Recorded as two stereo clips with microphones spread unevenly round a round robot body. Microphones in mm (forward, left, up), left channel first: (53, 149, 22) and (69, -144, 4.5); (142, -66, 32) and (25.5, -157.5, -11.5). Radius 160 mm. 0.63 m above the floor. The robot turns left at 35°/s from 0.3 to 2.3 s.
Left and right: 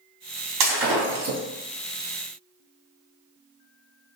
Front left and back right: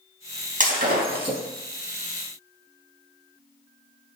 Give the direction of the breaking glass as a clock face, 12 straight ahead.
4 o'clock.